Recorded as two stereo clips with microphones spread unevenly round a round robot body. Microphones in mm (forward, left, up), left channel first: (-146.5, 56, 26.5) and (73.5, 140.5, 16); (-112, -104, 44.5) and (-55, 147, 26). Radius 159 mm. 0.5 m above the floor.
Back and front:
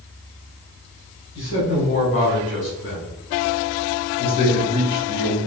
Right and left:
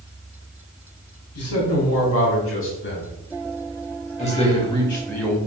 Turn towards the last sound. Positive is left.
turn(degrees=150)